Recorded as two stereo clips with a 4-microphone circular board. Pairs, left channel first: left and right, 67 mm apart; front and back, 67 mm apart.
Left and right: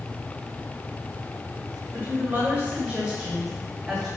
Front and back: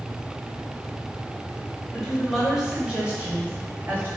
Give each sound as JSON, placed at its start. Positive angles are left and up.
{"t": 1.9, "sound": "a woman speaking", "azimuth_deg": -90, "distance_m": 1.6}